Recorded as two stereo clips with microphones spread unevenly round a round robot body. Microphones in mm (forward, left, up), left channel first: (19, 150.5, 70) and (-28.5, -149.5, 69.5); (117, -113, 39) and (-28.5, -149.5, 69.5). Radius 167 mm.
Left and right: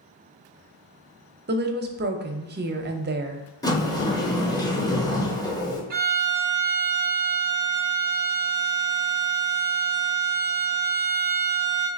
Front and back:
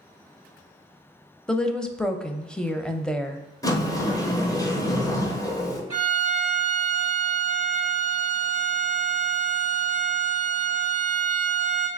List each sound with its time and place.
1.5 s a woman speaking: 55° right, 0.7 m
3.6 s a sliding door: 10° left, 1.0 m
5.9 s a violin: 140° right, 0.9 m